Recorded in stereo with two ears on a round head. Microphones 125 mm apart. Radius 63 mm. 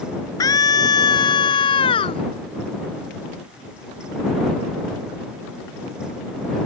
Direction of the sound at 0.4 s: 25° left (ahead or behind).